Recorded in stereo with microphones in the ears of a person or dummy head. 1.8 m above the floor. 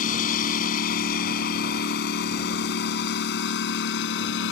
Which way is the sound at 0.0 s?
45° left (ahead or behind).